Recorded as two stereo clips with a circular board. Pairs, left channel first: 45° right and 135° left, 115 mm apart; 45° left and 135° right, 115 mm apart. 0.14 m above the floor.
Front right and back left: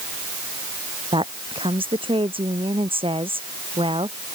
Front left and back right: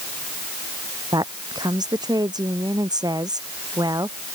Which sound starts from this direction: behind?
A woman speaking, at 1.1 s.